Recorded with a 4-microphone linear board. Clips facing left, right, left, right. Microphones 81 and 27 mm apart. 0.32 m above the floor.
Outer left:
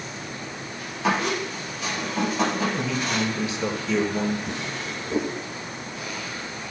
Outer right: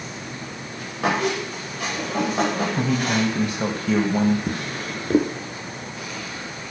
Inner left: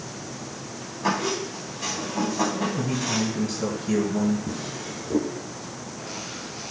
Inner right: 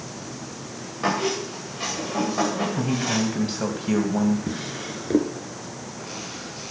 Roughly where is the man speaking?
Right.